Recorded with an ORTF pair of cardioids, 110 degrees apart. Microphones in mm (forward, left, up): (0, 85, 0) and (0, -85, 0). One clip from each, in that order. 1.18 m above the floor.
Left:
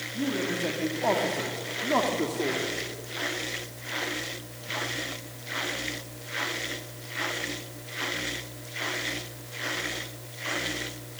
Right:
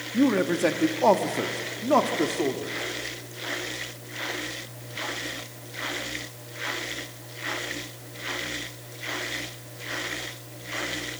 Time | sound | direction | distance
0.1 | a man speaking | 65° right | 2 m